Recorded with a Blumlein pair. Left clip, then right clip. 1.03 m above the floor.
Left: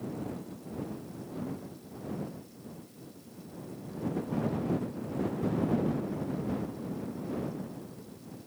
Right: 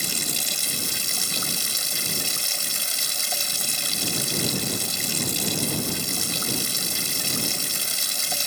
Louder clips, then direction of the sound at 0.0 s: Right 14 dB; 45° right.